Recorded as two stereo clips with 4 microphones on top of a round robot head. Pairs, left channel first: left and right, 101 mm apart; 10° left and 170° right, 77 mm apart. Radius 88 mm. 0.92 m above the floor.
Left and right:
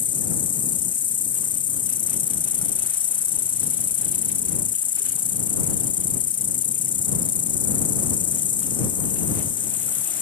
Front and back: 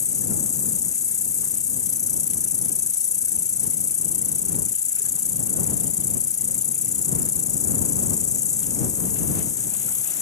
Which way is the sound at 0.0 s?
55° left.